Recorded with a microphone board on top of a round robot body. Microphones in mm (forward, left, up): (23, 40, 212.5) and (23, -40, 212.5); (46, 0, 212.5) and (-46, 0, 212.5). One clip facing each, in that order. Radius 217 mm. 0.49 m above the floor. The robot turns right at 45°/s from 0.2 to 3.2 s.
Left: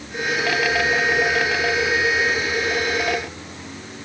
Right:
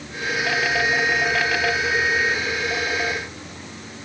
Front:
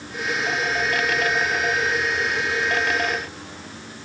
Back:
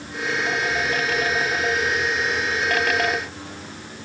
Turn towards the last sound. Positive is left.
No sound to turn to.